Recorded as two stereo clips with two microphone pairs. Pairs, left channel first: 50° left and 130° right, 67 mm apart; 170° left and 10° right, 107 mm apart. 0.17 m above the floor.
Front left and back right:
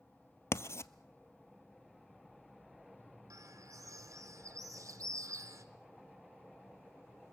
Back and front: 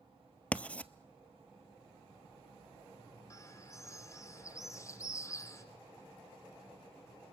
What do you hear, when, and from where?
0.5 s writing: 95° left, 0.6 m
3.3 s a bird: 140° right, 1.9 m